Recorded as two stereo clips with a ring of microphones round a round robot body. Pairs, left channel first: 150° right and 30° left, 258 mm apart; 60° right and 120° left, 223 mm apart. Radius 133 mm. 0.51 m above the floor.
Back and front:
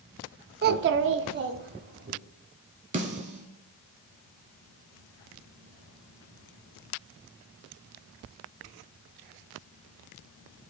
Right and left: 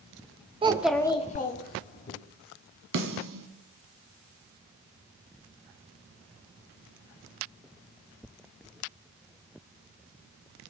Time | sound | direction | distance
0.6 | a child speaking | 65° left | 0.5 m
2.9 | a snare drum | 95° left | 1.1 m